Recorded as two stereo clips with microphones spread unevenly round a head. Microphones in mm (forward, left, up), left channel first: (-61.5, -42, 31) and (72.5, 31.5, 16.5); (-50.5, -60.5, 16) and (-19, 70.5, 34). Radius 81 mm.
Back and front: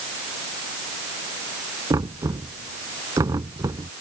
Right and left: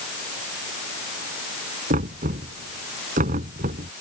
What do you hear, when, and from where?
1.9 s knocking: 100° left